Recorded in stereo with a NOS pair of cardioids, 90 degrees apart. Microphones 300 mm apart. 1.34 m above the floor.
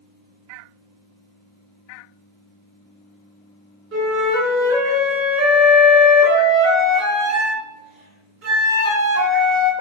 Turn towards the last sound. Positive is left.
turn(degrees=-50)